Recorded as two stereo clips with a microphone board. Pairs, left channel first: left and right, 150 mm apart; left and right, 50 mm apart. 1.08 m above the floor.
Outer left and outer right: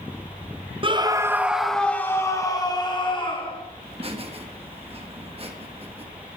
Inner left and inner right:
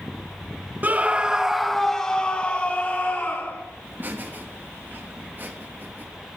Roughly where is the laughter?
Right.